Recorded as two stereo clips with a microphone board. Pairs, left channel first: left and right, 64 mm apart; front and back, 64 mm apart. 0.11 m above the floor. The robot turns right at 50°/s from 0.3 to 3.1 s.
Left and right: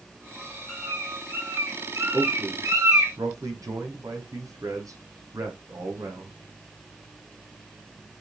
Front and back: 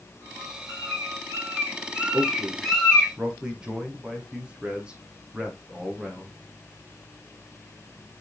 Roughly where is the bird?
Behind.